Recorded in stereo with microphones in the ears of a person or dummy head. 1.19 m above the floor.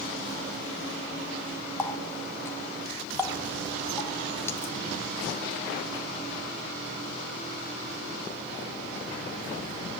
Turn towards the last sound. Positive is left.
turn(degrees=20)  # may be behind; listen again after turning